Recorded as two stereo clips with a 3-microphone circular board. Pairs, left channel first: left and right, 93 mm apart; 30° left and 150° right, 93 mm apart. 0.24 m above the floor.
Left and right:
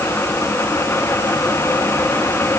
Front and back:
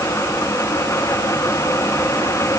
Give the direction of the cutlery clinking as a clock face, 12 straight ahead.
No cutlery clinking in this recording.